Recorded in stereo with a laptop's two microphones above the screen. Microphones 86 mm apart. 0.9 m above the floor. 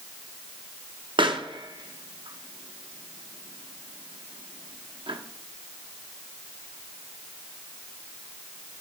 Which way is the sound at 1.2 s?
75° right (ahead or behind).